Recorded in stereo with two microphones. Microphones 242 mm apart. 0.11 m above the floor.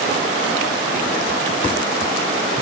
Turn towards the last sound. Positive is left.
No sound to turn to.